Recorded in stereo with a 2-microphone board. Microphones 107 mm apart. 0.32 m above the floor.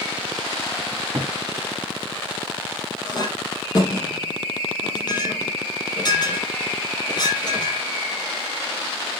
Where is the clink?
40° left (ahead or behind), 6 m.